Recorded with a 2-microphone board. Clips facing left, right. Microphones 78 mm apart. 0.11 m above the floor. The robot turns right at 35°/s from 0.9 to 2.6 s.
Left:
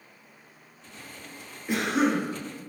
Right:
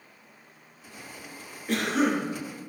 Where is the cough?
15° left (ahead or behind), 1.3 m; by 2.2 s 20° left (ahead or behind), 1.3 m.